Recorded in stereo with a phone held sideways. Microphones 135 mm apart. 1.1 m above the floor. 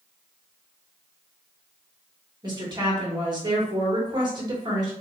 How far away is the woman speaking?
About 1.7 m.